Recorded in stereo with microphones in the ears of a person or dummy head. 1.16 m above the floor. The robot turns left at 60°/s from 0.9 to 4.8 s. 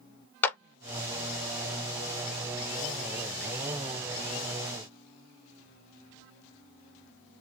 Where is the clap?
15° left (ahead or behind), 0.5 m.